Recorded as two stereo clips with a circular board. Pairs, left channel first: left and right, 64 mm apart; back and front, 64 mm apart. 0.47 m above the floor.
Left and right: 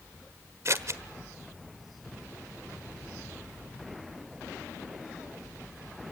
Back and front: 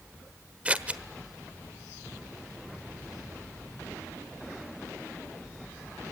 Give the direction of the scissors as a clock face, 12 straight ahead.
2 o'clock.